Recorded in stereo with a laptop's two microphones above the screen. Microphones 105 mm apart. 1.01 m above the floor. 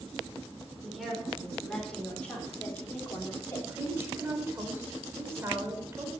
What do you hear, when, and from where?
0.8 s a woman speaking: centre (ahead or behind), 4 m; by 3.6 s 25° left (ahead or behind), 3 m
3.7 s a woman speaking: 25° right (ahead or behind), 4.5 m